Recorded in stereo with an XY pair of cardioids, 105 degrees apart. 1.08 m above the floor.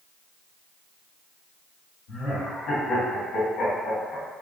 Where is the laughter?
70° left, 2.0 m.